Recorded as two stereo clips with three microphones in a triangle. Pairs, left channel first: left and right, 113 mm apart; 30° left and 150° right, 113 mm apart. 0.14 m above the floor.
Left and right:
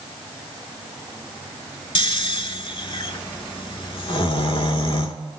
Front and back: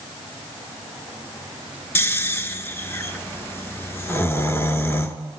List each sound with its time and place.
1.9 s snoring: 90° left, 0.5 m